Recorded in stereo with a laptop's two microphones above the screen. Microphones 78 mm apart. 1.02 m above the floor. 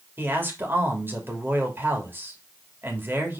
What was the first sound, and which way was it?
A man speaking, 30° right (ahead or behind).